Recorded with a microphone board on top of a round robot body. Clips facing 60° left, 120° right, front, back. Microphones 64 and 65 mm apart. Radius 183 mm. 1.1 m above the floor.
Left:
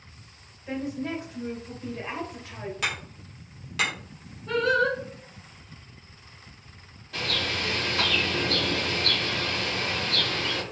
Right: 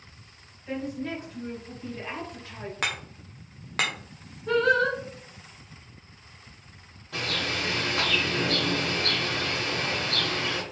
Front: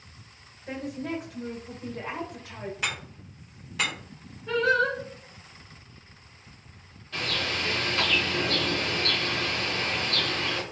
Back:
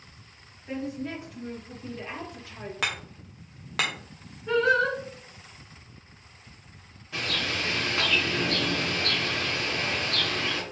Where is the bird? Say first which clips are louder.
Even, even; 105° right, 1.4 m.